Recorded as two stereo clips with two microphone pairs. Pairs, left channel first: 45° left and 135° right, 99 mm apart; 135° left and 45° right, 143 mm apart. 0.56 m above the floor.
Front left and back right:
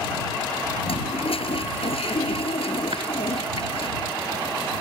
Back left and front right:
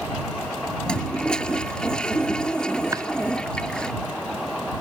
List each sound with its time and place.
0.9 s a toilet flushing: 50° left
2.9 s chopping: 115° right